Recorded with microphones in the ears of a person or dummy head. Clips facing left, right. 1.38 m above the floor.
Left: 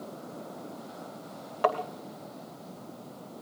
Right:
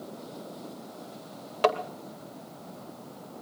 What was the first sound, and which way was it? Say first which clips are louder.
Tapping: right 2 dB; 35° right (ahead or behind).